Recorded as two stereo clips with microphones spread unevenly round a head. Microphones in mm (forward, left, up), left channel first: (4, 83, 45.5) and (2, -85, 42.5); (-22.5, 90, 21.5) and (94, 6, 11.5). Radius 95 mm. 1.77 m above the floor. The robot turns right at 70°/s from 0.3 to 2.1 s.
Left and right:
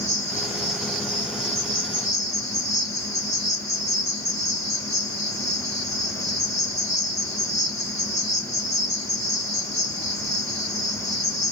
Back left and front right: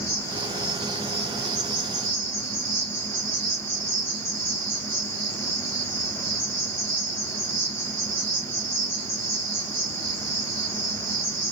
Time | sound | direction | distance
0.0 | an insect | 140° right | 2.5 m